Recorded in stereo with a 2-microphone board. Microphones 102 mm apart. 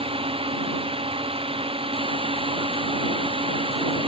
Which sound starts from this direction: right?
A drone, at 0.0 s.